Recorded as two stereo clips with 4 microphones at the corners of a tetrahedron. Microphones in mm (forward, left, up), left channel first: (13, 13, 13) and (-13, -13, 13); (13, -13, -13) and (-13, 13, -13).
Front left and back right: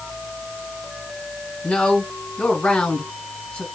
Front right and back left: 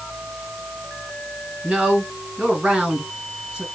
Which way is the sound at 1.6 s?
90° left.